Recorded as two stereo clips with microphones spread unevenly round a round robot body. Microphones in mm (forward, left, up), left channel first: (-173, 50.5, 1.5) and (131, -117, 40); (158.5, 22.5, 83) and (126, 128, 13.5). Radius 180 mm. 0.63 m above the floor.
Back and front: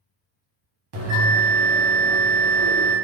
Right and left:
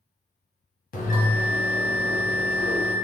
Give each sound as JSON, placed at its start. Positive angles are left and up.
{"t": 0.9, "sound": "a bell", "azimuth_deg": -65, "distance_m": 1.2}